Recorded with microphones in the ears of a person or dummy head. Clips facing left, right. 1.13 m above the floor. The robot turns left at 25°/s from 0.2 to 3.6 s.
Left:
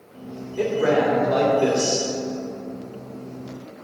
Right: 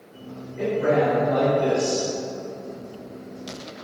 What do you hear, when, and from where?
0.6 s a man speaking: 100° left, 3 m; by 2.1 s 60° left, 3 m